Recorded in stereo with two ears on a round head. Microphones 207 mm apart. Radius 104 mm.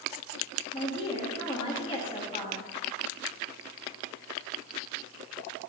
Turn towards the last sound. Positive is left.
turn(degrees=25)  # may be behind; listen again after turning